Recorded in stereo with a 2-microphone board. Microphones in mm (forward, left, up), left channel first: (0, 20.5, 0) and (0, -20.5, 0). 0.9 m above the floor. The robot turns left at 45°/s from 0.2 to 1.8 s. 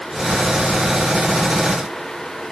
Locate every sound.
Only background noise.